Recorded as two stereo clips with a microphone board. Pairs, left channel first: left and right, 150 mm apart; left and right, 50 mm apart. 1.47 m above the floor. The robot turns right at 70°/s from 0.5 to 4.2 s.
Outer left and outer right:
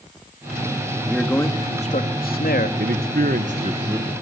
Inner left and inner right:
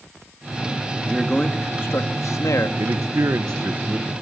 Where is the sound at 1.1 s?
5° right, 2.5 m; by 2.7 s 105° left, 2.5 m.